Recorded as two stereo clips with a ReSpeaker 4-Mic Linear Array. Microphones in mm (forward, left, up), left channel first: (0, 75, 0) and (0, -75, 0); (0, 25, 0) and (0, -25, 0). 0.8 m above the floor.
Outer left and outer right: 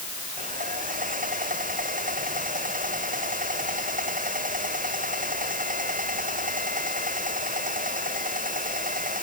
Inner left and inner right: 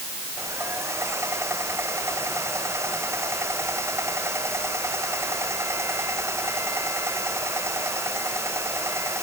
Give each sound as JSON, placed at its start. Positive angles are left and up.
{"t": 0.4, "sound": "sawing", "side_deg": -65}